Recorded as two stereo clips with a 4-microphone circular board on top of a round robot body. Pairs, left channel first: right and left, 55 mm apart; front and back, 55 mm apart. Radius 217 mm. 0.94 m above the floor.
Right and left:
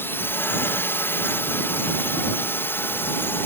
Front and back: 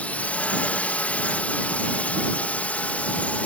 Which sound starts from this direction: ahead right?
A drone, at 0.0 s.